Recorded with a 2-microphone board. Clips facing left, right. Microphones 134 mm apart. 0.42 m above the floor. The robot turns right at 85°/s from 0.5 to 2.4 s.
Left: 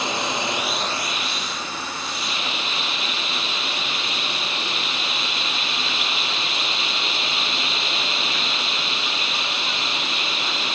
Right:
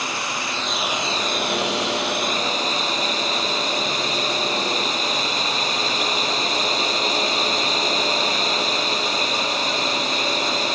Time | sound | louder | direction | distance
0.0 | a drone | left 3 dB | 160° left | ?